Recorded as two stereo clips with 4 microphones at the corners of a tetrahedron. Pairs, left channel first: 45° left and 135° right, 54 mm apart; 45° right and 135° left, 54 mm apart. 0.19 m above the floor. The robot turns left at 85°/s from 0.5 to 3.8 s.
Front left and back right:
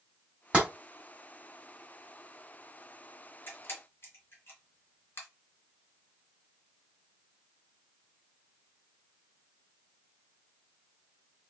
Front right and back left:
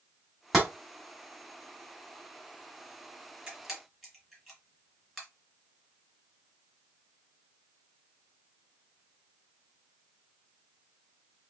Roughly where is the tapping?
Behind right.